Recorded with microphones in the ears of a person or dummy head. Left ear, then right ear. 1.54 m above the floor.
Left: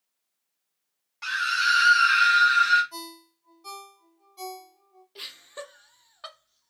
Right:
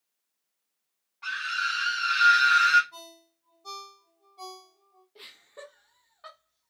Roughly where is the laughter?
Left.